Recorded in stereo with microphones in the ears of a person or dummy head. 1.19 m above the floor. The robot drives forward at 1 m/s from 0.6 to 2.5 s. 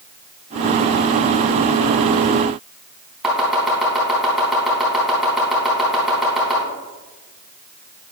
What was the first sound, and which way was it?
Chopping, 5° right (ahead or behind).